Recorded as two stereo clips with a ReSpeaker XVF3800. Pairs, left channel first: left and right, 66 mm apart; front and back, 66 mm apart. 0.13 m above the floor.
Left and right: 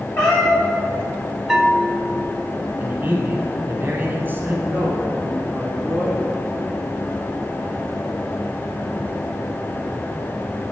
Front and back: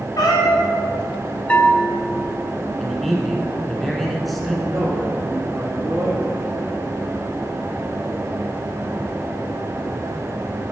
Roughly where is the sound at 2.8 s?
Right.